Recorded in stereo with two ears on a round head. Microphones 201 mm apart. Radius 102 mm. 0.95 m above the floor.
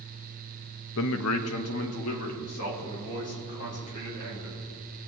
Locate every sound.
1.0 s a man speaking: 60° left (ahead or behind), 0.6 m; by 4.6 s 70° left (ahead or behind), 4.5 m